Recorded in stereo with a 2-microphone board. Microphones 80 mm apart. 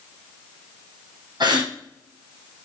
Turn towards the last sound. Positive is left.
turn(degrees=-65)  # may be behind; listen again after turning